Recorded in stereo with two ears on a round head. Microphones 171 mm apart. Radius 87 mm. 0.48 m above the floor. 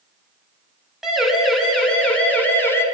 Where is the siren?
Centre (ahead or behind), 6.5 m; by 2.9 s 15° left (ahead or behind), 5 m.